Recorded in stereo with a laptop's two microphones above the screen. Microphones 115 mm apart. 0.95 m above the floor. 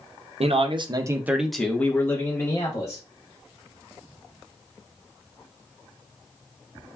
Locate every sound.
0.4 s a man speaking: 65° right (ahead or behind), 0.6 m; by 3.0 s 35° left (ahead or behind), 1.3 m